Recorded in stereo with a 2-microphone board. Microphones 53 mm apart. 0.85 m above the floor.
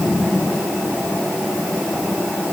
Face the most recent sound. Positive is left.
No sound to turn to.